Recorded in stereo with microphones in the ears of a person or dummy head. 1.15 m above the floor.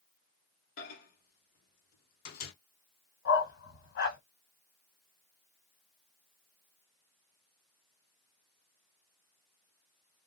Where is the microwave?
50° left (ahead or behind), 0.8 m.